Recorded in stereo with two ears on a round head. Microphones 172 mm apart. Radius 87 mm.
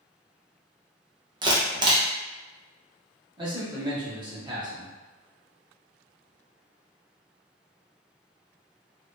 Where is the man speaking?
25° right (ahead or behind), 0.9 m.